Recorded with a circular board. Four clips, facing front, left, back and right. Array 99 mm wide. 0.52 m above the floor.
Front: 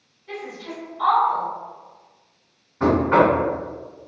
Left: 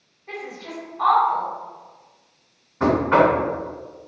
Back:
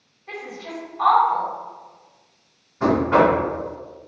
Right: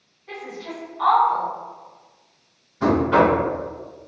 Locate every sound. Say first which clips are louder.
0.3 s a woman speaking: even, even; 160° left, 1.6 m
2.8 s knocking: even, even; 75° left, 1.6 m